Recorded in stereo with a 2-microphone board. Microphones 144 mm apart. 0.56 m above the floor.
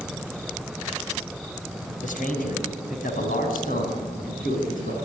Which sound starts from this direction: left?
A man speaking, at 2.0 s.